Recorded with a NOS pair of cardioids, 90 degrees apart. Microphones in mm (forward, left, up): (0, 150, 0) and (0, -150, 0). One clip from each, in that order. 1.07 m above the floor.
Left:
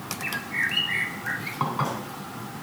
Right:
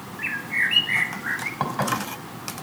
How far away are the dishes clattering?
About 3 m.